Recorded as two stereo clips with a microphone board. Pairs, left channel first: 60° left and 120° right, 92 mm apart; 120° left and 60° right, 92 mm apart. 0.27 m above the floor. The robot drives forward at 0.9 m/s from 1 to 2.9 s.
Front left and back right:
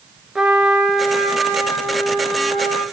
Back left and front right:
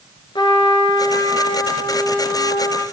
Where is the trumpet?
155° left, 1.4 m; by 2.8 s 170° left, 3 m.